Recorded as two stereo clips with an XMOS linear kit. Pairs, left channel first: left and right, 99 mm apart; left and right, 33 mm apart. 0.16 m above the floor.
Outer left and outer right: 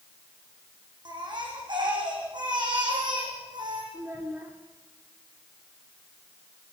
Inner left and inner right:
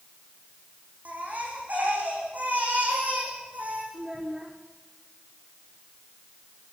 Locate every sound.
1.1 s a baby crying: 50° right (ahead or behind), 7.5 m
3.9 s a child speaking: 25° right (ahead or behind), 3.5 m